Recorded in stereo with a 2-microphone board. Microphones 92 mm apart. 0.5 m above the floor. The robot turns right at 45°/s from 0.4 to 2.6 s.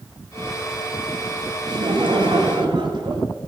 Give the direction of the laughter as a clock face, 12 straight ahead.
4 o'clock.